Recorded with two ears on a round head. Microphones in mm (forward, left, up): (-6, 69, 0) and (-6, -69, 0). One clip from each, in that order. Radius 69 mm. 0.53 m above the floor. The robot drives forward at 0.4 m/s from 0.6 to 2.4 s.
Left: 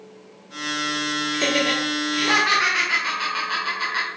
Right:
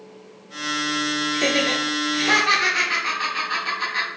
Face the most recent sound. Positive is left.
turn(degrees=10)  # may be behind; listen again after turning